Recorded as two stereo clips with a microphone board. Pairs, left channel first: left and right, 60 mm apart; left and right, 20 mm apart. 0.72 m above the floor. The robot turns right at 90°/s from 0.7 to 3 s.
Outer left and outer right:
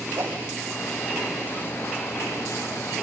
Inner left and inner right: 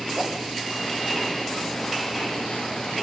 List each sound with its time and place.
0.2 s a whoosh: 65° right (ahead or behind), 3 m